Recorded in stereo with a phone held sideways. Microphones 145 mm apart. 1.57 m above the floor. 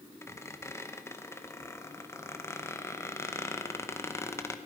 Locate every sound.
0.2 s a squeak: 20° left (ahead or behind), 0.9 m